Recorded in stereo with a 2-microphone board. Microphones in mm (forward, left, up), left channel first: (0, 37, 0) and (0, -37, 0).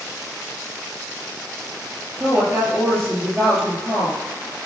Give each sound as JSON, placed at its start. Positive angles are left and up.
{"t": 2.2, "sound": "a woman speaking", "side_deg": -30, "distance_m": 5.0}